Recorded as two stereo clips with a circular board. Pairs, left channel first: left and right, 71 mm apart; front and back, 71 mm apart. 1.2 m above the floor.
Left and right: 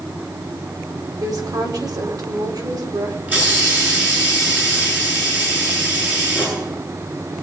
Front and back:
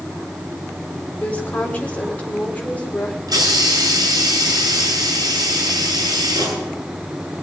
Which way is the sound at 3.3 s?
155° right.